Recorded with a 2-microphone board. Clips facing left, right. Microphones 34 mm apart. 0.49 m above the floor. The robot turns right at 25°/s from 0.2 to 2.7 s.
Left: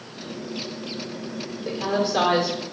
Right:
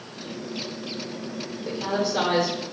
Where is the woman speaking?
25° left (ahead or behind), 1.2 m; by 2.6 s 35° left (ahead or behind), 1.2 m.